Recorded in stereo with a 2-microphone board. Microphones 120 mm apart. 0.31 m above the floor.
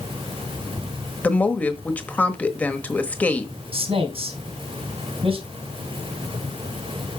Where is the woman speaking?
15° left (ahead or behind), 1.0 m.